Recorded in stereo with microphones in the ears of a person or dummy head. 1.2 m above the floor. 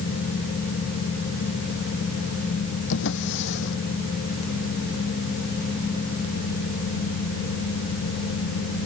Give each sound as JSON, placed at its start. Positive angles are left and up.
{"t": 2.9, "sound": "a drawer", "side_deg": 70}